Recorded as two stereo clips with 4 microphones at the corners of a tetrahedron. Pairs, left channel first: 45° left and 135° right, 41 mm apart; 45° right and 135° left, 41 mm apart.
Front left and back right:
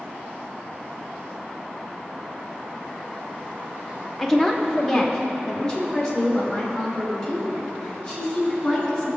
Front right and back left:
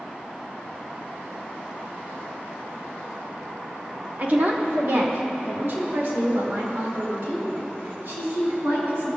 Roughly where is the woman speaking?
Behind left.